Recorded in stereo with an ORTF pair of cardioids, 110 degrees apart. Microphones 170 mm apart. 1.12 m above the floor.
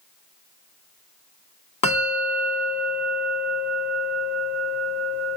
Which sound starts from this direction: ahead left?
A bell, at 1.8 s.